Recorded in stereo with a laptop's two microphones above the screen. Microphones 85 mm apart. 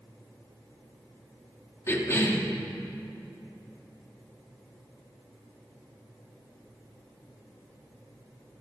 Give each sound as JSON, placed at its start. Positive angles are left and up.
{"t": 1.9, "sound": "a cough", "side_deg": 35, "distance_m": 2.5}